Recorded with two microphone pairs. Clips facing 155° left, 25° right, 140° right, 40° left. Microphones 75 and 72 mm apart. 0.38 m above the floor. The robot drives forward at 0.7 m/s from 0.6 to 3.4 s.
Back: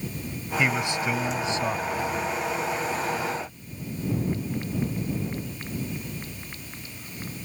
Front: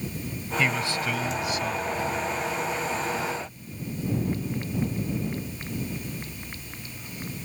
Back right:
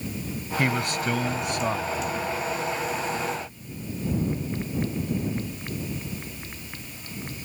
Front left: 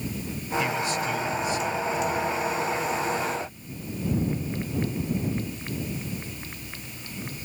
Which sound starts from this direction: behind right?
A man speaking, at 0.6 s.